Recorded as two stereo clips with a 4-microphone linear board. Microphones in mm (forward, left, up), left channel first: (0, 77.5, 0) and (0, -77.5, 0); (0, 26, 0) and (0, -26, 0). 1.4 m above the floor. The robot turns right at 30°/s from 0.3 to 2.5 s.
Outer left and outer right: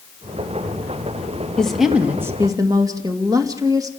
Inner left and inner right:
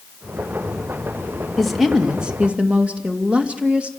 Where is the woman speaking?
5° left (ahead or behind), 2.5 m; by 3.9 s 20° right (ahead or behind), 2.5 m.